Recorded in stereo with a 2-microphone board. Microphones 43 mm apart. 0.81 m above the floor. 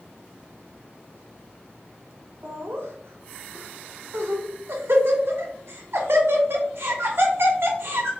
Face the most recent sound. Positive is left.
turn(degrees=-70)  # may be behind; listen again after turning